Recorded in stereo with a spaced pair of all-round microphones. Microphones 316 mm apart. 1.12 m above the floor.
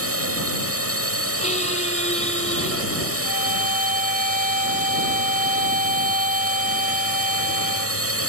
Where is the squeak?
20° left (ahead or behind).